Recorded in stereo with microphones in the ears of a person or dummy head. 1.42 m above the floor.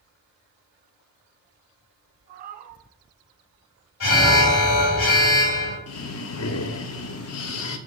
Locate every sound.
2.3 s a cat meowing: 50° right (ahead or behind), 2.0 m
4.0 s an alarm: 75° left (ahead or behind), 3 m
5.9 s breathing: 75° left (ahead or behind), 0.7 m